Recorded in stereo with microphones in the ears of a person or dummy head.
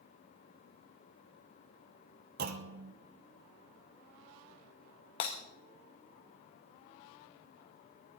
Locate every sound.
2.4 s a clunk: 60° right (ahead or behind), 1.0 m
5.2 s breaking glass: 35° left (ahead or behind), 1.2 m